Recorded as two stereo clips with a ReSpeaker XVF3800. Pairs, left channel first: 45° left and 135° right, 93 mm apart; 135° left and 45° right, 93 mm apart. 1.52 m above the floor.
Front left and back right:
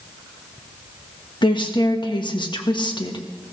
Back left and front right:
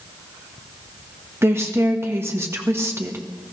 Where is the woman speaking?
15° left, 1.5 m.